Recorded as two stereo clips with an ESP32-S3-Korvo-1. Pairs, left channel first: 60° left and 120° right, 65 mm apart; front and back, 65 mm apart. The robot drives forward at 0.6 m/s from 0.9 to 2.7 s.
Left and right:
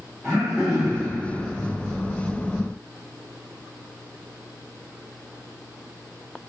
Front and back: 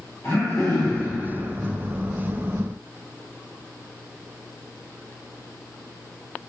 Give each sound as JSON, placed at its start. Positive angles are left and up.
{"t": 0.2, "sound": "throat clearing", "azimuth_deg": -25, "distance_m": 1.9}